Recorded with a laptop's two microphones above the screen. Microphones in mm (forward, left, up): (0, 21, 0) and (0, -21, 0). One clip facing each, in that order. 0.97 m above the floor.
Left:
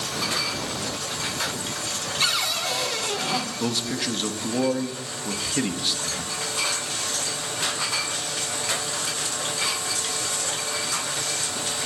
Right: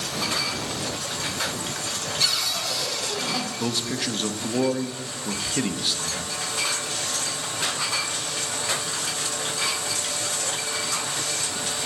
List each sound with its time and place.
2.2 s a cupboard door: 35° left (ahead or behind), 1.0 m
3.6 s a man speaking: centre (ahead or behind), 0.8 m